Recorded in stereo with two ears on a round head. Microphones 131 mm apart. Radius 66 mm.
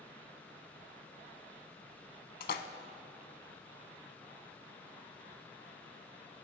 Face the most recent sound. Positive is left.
turn(degrees=65)  # may be behind; listen again after turning